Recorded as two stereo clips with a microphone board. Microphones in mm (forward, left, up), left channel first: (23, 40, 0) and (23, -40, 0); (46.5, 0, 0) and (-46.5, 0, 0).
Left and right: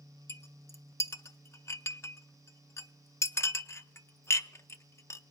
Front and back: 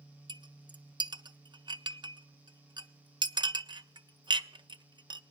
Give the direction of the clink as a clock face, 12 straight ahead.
7 o'clock.